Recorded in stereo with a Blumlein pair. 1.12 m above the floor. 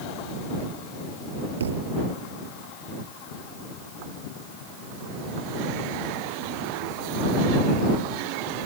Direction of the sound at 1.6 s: 65° right.